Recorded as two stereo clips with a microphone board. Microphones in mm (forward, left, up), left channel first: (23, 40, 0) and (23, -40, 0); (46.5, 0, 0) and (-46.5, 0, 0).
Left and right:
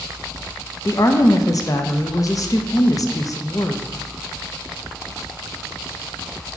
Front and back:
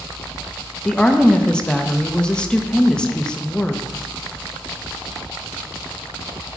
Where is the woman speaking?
80° left, 0.6 m.